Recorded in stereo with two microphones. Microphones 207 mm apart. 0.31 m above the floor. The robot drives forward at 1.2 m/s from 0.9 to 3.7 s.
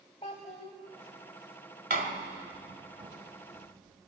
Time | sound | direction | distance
0.2 | a child speaking | 30° left (ahead or behind) | 0.9 m
1.9 | a door slam | 45° right (ahead or behind) | 1.2 m